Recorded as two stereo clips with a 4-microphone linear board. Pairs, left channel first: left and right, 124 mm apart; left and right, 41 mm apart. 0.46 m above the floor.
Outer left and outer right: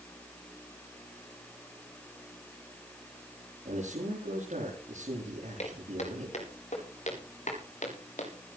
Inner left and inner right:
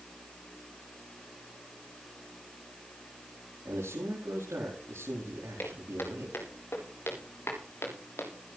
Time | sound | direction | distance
3.6 | a man speaking | 75° right (ahead or behind) | 8.5 m
5.6 | footsteps | 65° left (ahead or behind) | 9 m